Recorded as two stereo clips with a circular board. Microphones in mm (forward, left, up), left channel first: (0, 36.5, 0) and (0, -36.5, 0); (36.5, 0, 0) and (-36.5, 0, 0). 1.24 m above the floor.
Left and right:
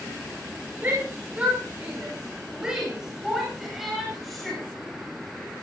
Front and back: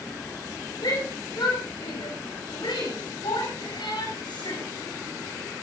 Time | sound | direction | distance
0.8 | a shout | 25° right | 5 m